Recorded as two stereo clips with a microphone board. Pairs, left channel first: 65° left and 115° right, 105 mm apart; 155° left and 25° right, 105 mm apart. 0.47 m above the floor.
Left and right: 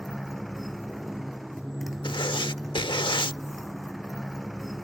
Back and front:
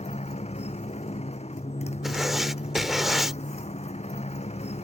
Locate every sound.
0.0 s a motorcycle: 155° left
2.0 s writing: 65° left